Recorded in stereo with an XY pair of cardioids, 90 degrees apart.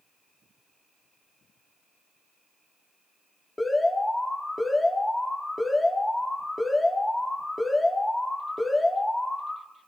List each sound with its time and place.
3.6 s an alarm: 15° left, 3 m